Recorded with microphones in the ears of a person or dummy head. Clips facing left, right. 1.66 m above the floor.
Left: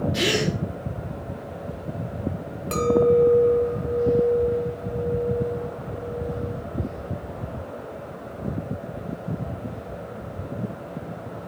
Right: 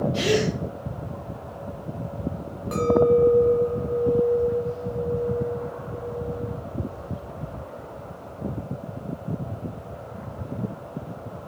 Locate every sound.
0.1 s a gasp: 20° left (ahead or behind), 4 m
2.7 s a clink: 35° left (ahead or behind), 1.8 m